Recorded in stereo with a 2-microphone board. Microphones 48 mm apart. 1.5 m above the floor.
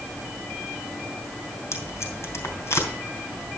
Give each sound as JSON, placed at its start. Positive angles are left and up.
{"t": 1.7, "sound": "tape being pulled", "side_deg": 60, "distance_m": 3.0}